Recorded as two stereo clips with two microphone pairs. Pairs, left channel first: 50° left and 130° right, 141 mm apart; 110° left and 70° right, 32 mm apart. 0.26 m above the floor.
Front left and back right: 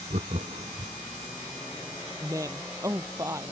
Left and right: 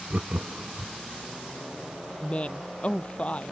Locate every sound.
0.1 s laughter: 110° right
2.2 s a woman speaking: 160° left